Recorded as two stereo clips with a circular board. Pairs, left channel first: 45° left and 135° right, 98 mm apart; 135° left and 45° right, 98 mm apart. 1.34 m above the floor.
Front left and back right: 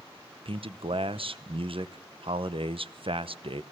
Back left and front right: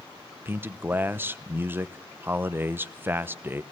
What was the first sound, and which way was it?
A man speaking, 110° right.